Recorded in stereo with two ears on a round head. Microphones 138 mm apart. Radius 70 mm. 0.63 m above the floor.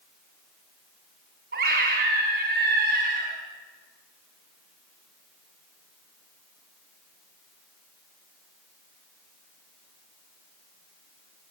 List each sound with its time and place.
1.5 s a scream: 60° right (ahead or behind), 6.5 m